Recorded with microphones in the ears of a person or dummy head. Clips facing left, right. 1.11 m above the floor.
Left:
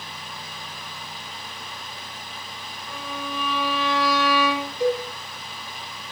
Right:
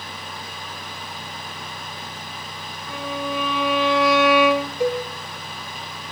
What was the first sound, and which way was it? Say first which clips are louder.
A violin: right 6 dB; 25° right (ahead or behind).